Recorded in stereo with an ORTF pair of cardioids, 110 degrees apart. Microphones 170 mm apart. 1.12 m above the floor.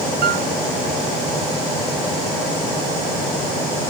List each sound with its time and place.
0.2 s a piano: 65° right, 6 m